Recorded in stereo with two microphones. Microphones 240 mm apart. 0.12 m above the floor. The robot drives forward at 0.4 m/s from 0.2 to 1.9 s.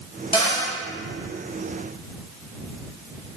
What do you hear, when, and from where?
0.3 s a cupboard door: 25° left (ahead or behind), 1.1 m